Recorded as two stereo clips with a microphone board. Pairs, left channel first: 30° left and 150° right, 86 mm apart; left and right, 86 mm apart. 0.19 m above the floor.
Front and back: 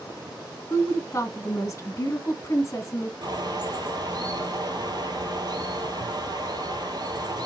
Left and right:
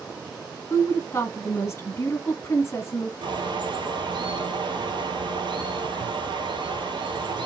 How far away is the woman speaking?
About 1.2 m.